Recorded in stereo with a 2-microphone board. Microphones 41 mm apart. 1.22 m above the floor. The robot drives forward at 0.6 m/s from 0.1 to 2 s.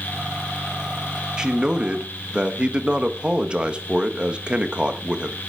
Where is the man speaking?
20° right (ahead or behind), 1.6 m; by 5.4 s 25° right (ahead or behind), 1.2 m.